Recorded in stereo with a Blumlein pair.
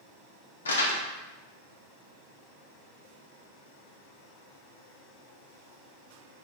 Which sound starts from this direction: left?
Crumpling, at 0.7 s.